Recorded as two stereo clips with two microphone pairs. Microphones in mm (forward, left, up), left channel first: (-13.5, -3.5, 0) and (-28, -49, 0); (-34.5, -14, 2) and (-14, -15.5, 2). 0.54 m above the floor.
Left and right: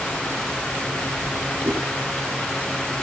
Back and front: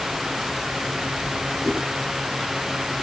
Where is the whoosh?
130° right, 9.5 m.